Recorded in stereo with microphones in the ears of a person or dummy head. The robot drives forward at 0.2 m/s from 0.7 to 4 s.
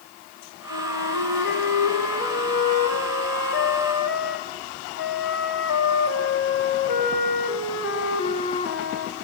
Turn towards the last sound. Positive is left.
turn(degrees=70)  # may be behind; listen again after turning